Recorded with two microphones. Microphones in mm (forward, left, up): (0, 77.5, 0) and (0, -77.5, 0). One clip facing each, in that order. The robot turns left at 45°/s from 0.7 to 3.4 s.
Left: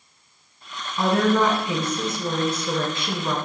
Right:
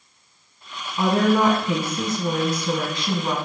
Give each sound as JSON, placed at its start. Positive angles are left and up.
{"t": 1.0, "sound": "a woman speaking", "azimuth_deg": -15, "distance_m": 1.4}